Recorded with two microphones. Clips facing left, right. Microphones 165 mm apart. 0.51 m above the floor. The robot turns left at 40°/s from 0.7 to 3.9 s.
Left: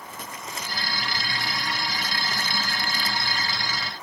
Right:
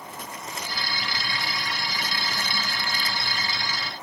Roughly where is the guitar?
No guitar in this recording.